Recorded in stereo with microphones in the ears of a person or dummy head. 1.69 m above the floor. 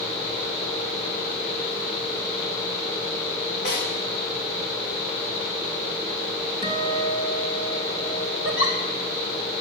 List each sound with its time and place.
3.6 s a snare drum: 60° left (ahead or behind), 5.5 m
6.6 s a guitar: 35° left (ahead or behind), 3 m
8.4 s a giggle: 70° left (ahead or behind), 3 m